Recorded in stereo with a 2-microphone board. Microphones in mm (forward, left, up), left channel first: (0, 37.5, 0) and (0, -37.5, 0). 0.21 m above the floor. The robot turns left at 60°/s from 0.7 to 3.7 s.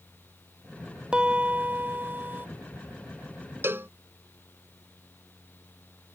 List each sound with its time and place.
1.1 s a piano: 15° right (ahead or behind); by 2.5 s 25° right (ahead or behind)
3.6 s a cowbell: 35° right (ahead or behind); by 3.9 s 30° right (ahead or behind)